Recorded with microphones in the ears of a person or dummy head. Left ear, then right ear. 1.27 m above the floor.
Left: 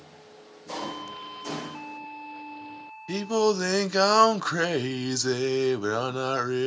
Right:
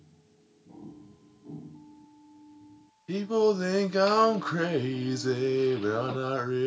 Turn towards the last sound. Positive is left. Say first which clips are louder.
# left 1 dB
turn(degrees=30)  # may be behind; listen again after turning